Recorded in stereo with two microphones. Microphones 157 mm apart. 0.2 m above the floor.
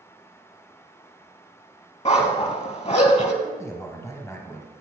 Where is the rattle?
No rattle in this recording.